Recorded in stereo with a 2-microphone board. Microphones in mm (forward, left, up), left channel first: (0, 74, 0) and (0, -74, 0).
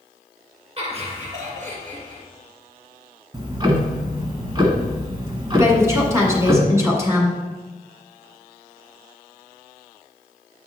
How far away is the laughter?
About 2.5 m.